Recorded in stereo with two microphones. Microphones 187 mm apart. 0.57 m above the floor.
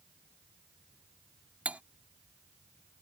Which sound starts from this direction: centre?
Cutlery clinking, at 1.6 s.